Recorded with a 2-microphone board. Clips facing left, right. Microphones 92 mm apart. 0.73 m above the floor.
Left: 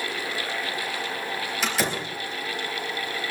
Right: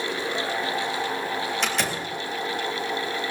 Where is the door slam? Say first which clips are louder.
Even; 5° left (ahead or behind), 3.5 m.